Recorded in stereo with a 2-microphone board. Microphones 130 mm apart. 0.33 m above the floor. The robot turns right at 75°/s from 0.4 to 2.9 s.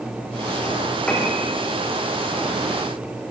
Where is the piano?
10° left (ahead or behind), 4.5 m; by 1.4 s 15° right (ahead or behind), 4.5 m.